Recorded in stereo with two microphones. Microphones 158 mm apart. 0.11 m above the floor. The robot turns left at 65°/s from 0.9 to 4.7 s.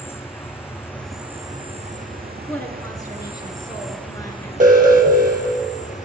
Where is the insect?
15° left, 1.3 m; by 6.1 s 125° left, 1.3 m.